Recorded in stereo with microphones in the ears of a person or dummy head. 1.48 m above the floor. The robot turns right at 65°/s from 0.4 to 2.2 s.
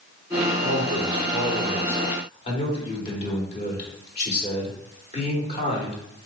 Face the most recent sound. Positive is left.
turn(degrees=35)